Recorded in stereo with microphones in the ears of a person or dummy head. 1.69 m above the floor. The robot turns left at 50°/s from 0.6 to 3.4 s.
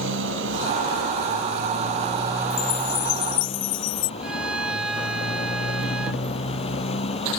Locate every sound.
0.0 s a motorcycle: 80° right; by 7.4 s 140° left
2.5 s a chime: 120° left; by 4.1 s 75° left
4.2 s a violin: 10° right (ahead or behind)